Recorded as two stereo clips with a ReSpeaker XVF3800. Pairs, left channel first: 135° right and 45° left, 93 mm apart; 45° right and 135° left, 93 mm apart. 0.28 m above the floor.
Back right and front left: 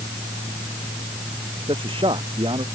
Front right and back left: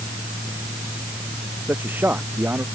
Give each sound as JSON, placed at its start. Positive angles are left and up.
{"t": 1.7, "sound": "a man speaking", "azimuth_deg": 65}